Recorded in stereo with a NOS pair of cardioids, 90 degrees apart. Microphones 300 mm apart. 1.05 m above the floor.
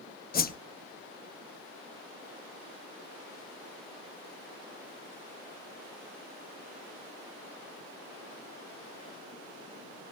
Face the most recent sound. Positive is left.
turn(degrees=30)